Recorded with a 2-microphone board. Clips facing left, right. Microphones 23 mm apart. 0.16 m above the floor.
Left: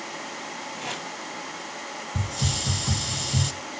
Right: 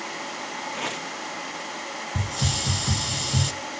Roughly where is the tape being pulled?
Right.